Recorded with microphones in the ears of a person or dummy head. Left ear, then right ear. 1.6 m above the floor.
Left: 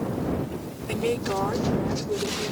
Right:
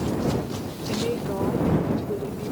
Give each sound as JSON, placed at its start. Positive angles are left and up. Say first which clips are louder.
{"t": 0.9, "sound": "a woman speaking", "louder": "left 2 dB", "side_deg": 70}